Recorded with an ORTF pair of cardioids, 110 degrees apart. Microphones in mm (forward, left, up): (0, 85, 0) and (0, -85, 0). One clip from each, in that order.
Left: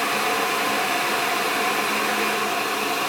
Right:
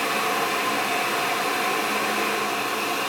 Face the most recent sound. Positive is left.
turn(degrees=30)